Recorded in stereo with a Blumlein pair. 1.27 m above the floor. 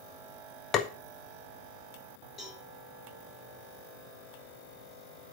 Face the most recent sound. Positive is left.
turn(degrees=15)